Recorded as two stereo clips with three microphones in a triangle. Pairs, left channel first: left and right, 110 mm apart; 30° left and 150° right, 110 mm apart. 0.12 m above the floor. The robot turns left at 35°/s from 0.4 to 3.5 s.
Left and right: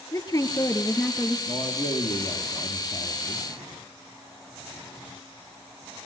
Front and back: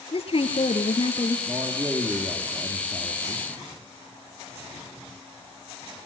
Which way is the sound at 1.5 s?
145° left.